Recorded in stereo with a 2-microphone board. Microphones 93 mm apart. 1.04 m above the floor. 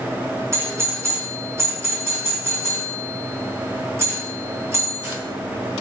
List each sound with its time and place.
0.5 s a doorbell: 30° right (ahead or behind), 1.2 m